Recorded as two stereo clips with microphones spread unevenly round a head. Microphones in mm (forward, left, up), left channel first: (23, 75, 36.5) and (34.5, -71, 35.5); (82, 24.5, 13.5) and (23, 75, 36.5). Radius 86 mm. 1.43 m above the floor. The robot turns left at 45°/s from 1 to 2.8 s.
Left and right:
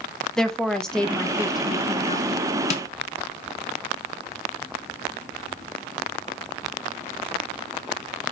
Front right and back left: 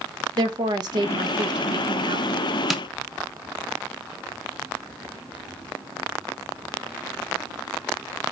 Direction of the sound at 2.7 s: 50° left.